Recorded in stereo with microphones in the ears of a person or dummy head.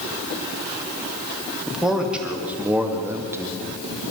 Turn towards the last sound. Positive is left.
turn(degrees=-20)  # may be behind; listen again after turning